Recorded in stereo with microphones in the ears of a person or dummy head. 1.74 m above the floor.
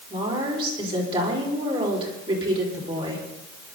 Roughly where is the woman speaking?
Right.